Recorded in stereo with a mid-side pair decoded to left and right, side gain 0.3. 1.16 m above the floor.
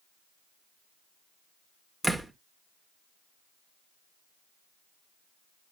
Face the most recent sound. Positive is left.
turn(degrees=-25)